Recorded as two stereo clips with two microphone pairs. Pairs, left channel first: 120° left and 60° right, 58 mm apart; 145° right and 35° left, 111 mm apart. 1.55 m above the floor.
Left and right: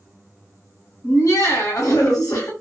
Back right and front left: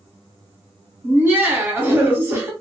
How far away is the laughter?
About 0.8 m.